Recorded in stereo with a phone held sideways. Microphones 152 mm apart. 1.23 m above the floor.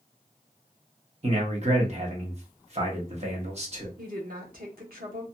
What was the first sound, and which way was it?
A man speaking, 45° right (ahead or behind).